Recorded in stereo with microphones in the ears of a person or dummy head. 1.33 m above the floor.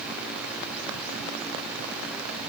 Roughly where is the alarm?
No alarm in this recording.